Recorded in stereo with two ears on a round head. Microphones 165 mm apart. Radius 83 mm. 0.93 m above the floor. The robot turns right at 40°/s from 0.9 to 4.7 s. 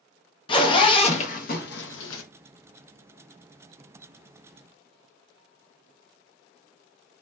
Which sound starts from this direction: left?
A zipper, at 0.5 s.